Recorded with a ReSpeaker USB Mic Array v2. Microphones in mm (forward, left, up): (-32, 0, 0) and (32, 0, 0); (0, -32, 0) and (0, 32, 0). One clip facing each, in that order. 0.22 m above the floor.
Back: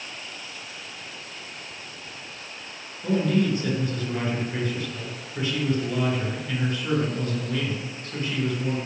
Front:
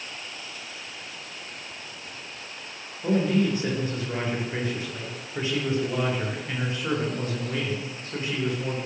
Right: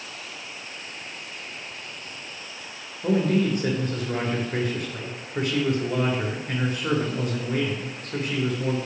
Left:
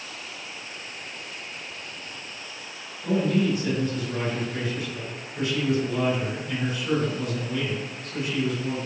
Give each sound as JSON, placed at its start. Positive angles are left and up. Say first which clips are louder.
{"t": 3.0, "sound": "a man speaking", "louder": "even, right 1 dB", "azimuth_deg": -65, "distance_m": 3.5}